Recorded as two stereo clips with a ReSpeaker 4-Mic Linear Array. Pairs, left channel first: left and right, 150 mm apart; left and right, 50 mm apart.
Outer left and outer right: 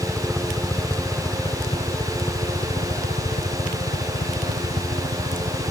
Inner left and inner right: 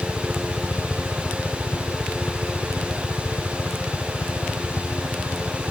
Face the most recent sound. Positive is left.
turn(degrees=70)  # may be behind; listen again after turning